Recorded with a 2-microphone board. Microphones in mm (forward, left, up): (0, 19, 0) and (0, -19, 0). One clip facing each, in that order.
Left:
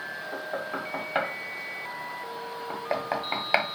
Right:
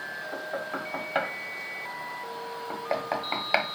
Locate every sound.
0.3 s knocking: 5° left (ahead or behind), 1.1 m